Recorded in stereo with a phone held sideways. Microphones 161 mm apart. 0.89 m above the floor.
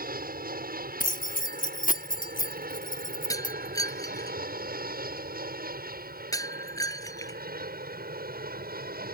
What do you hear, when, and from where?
0.0 s an aircraft: 65° right (ahead or behind); by 9.2 s 70° right (ahead or behind)
1.0 s keys jangling: 60° left (ahead or behind)
3.3 s breaking glass: 20° left (ahead or behind)